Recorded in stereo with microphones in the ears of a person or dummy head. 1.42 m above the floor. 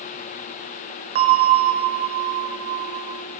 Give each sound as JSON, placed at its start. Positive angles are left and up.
{"t": 1.1, "sound": "a bell", "side_deg": -30, "distance_m": 0.8}